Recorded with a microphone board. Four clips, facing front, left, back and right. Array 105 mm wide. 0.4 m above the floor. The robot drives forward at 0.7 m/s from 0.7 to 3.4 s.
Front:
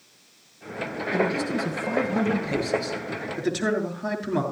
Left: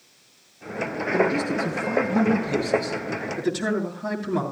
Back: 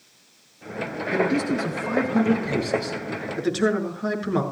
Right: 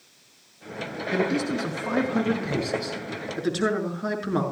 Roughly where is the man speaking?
Behind right.